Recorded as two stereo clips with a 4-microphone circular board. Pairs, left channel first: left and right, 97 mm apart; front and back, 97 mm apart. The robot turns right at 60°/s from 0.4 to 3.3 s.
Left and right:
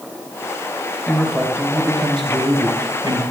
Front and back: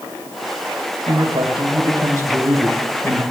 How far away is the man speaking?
About 3 m.